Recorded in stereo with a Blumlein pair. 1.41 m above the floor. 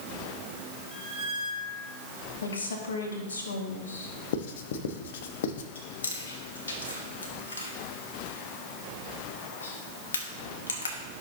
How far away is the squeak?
About 5 m.